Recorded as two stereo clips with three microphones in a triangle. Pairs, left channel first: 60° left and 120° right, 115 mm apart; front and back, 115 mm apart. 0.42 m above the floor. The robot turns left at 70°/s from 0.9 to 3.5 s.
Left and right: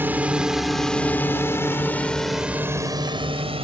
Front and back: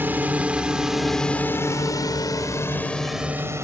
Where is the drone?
150° right; by 3.6 s 120° right.